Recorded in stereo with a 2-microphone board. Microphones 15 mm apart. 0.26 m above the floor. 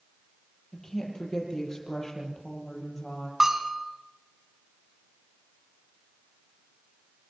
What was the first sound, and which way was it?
A woman speaking, 30° left (ahead or behind).